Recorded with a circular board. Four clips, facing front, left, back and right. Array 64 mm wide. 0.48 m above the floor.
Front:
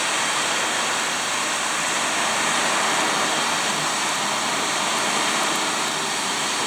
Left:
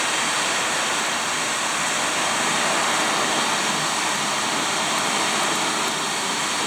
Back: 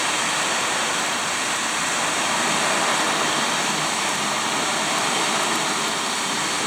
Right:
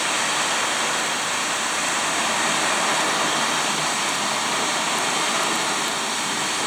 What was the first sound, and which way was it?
Only background noise.